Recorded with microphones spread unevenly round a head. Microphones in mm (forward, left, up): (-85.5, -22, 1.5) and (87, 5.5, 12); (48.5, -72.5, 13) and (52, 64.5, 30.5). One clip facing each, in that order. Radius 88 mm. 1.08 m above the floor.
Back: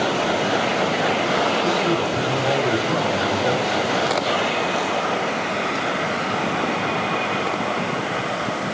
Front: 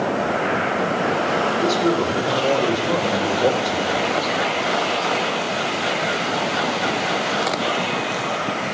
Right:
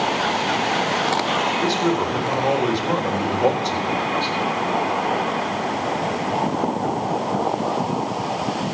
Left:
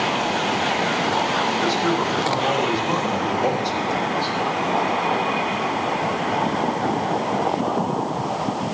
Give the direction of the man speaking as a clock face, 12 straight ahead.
1 o'clock.